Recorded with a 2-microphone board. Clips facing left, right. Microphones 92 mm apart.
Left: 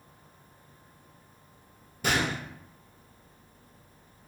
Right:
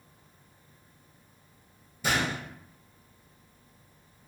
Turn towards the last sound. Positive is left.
turn(degrees=65)  # may be behind; listen again after turning